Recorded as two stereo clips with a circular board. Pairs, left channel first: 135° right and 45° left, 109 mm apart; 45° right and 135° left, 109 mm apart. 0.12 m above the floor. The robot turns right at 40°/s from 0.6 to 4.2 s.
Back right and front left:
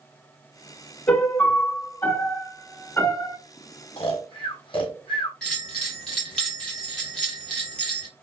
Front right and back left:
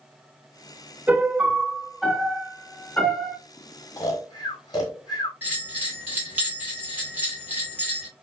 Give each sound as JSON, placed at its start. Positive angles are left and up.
{"t": 1.1, "sound": "a piano", "azimuth_deg": 175, "distance_m": 0.6}
{"t": 4.0, "sound": "snoring", "azimuth_deg": -105, "distance_m": 0.9}
{"t": 5.4, "sound": "a bell", "azimuth_deg": 155, "distance_m": 1.4}